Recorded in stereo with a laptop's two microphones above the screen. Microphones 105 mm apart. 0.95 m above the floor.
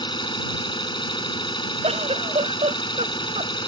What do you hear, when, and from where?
0.0 s an engine running: 50° left (ahead or behind)
1.8 s a giggle: 85° right